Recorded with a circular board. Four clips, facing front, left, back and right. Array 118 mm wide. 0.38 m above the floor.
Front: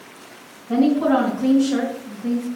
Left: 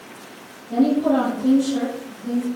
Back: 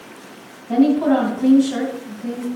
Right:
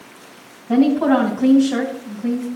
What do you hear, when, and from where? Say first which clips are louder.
0.7 s a woman speaking: right 3 dB, back 2 dB; 100° right, 2.5 m